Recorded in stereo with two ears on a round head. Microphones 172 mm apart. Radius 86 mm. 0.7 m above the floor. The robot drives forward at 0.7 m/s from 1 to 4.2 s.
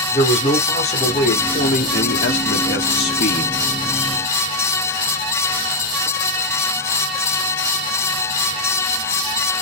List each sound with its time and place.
0.1 s a man speaking: 35° left (ahead or behind), 1.6 m; by 3.5 s 50° left (ahead or behind), 1.2 m